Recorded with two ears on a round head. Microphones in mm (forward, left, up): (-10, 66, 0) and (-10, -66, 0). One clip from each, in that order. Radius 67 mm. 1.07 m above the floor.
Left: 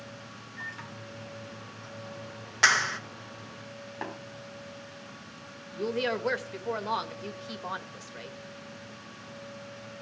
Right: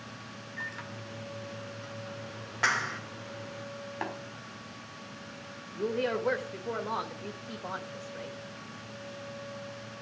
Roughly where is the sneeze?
I don't hear a sneeze.